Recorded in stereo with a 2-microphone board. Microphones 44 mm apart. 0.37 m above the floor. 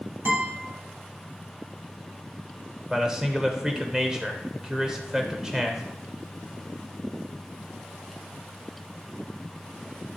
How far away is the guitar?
About 2.5 m.